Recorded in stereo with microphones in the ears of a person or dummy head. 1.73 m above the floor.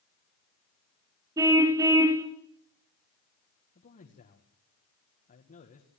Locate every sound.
1.4 s a car horn: 20° right (ahead or behind), 3 m
3.8 s a man speaking: 40° left (ahead or behind), 1.9 m